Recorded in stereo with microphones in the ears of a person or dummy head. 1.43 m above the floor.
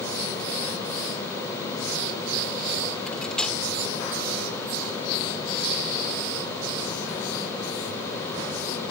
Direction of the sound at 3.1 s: 5° left (ahead or behind).